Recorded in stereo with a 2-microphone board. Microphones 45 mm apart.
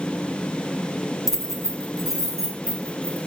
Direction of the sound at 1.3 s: 10° right (ahead or behind).